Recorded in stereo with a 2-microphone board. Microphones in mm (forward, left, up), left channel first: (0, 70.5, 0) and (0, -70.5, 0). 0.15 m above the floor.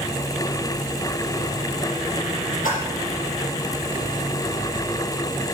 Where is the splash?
70° left (ahead or behind), 6.5 m.